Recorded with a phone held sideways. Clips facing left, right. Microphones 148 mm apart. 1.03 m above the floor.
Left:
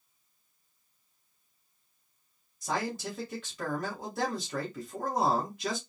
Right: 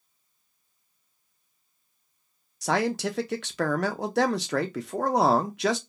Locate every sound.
2.6 s a man speaking: 80° right, 0.6 m